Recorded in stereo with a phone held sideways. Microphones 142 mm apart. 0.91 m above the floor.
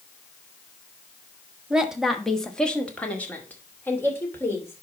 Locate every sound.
1.7 s a woman speaking: 5° right (ahead or behind), 1.1 m; by 4.8 s 15° left (ahead or behind), 3 m